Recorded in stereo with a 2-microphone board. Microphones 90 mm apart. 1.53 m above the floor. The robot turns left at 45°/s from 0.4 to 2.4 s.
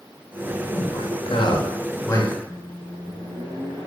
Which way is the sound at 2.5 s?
70° right (ahead or behind).